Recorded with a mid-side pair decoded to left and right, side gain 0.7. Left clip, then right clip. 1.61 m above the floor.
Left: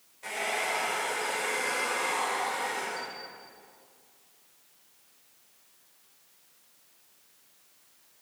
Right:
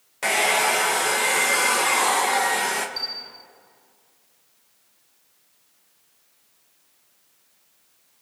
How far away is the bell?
About 0.9 m.